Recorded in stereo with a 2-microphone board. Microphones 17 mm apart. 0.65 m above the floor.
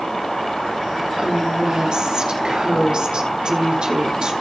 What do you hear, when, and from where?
1.2 s a woman speaking: 55° right (ahead or behind), 2 m